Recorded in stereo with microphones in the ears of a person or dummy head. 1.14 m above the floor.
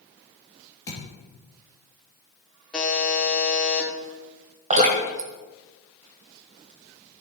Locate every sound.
0.9 s a thud: 20° left (ahead or behind), 4 m
2.7 s a buzzer: 5° left (ahead or behind), 1.5 m
4.7 s dripping: 35° right (ahead or behind), 1.6 m